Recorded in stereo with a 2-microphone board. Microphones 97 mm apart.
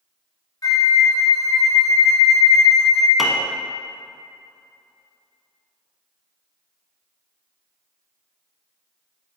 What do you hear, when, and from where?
0.6 s a flute: 40° left (ahead or behind), 0.7 m
3.2 s a piano: 5° right (ahead or behind), 0.8 m